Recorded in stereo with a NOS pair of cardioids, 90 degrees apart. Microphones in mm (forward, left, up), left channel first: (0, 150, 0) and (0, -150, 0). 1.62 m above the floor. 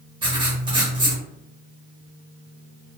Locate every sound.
0.2 s writing: 15° right, 1.0 m